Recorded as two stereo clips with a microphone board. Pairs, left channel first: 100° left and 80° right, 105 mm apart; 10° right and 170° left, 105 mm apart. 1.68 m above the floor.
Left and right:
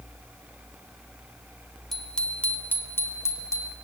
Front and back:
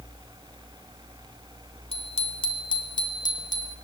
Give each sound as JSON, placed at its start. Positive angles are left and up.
{"t": 1.9, "sound": "a bicycle bell", "azimuth_deg": 15, "distance_m": 2.5}